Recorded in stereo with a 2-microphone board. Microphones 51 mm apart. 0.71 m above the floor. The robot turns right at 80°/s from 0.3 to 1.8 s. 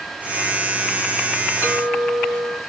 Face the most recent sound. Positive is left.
turn(degrees=45)  # may be behind; listen again after turning